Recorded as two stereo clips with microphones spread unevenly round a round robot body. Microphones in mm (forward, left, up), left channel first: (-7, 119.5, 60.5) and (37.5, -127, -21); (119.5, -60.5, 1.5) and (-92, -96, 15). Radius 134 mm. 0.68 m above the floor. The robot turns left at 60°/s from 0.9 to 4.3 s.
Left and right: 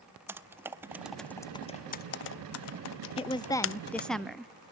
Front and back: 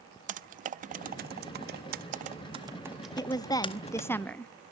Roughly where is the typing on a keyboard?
Behind right.